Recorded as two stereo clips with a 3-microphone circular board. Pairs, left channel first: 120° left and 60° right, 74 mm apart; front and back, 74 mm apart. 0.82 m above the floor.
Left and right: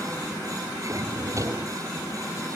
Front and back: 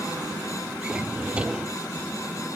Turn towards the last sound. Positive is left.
turn(degrees=-105)